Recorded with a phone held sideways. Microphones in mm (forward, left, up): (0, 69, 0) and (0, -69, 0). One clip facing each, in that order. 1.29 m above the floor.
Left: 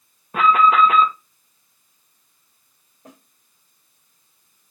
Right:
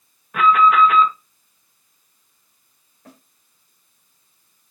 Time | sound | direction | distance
0.3 | an alarm | 35° left (ahead or behind) | 2 m
3.0 | a snare drum | 15° left (ahead or behind) | 5 m